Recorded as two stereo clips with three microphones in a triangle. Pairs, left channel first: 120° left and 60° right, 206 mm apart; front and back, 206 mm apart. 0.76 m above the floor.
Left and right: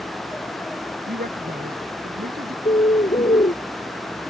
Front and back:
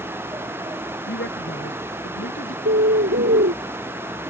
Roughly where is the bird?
Behind.